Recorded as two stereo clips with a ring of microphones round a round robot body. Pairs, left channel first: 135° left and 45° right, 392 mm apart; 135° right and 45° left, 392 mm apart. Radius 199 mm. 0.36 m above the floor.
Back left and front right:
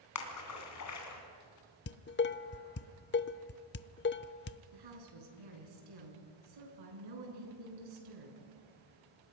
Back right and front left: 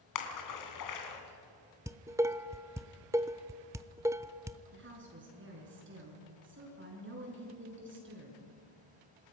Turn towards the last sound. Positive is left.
turn(degrees=-15)